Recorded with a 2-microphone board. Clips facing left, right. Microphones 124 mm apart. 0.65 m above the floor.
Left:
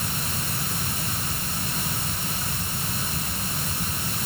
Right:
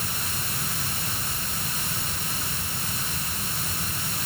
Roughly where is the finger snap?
I don't hear a finger snap.